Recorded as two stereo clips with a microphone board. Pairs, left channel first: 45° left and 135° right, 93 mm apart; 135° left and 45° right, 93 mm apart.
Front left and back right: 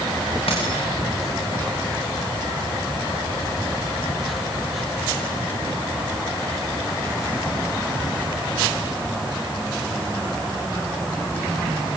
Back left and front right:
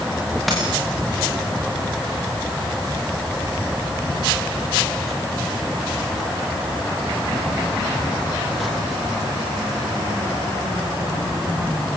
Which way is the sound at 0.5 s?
45° left.